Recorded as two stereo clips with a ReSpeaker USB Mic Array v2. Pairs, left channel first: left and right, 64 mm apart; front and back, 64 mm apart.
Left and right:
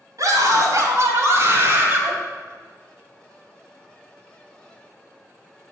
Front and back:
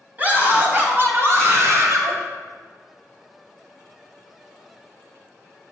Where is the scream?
120° right, 3.5 m; by 2.1 s 145° right, 2.5 m.